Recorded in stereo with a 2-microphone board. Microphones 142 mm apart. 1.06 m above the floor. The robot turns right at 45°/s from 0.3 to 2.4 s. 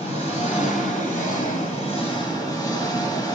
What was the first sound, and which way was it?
An engine running, 55° left.